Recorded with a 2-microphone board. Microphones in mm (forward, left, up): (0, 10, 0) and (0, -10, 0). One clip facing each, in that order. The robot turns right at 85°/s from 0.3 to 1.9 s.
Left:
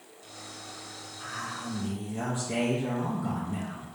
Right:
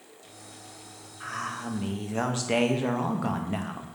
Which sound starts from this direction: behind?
A man speaking, at 1.2 s.